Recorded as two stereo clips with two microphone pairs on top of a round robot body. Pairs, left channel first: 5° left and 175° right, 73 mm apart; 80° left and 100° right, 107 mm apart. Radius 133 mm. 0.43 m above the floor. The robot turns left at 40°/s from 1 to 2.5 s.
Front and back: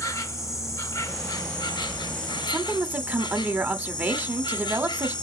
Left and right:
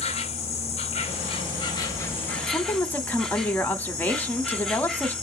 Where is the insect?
55° left, 1.1 m; by 5.2 s 5° right, 1.1 m.